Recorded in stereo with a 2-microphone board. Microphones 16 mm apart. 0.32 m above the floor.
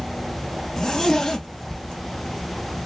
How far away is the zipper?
About 0.6 m.